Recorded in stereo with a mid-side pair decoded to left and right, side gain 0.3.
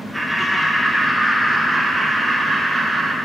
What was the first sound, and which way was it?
Laughter, 10° left.